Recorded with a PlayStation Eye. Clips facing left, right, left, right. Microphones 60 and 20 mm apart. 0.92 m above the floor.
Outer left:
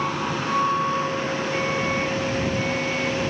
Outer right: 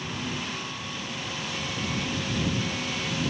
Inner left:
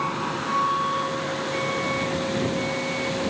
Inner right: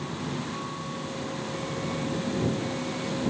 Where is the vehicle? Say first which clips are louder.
Outer left 8 dB, inner left 7 dB; 75° left (ahead or behind); by 3.3 s 45° left (ahead or behind).